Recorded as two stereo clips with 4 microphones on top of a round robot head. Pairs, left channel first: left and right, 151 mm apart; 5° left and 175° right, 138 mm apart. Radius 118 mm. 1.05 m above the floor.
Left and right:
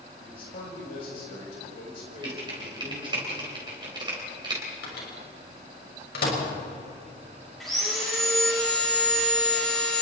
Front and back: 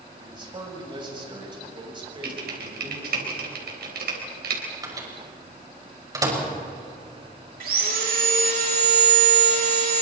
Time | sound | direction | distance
0.2 | a man speaking | 130° left | 7 m
2.2 | typing on a keyboard | 160° right | 4 m
4.8 | a microwave | 120° left | 5.5 m
7.6 | sawing | straight behind | 6.5 m